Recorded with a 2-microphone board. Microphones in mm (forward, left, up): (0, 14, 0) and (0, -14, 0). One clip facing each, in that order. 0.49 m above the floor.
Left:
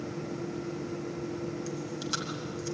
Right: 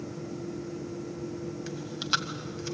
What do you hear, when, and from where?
1.7 s chewing: 50° right (ahead or behind), 1.7 m